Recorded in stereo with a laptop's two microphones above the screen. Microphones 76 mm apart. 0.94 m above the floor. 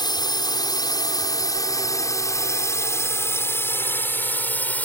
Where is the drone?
65° left (ahead or behind); by 4.8 s 20° left (ahead or behind).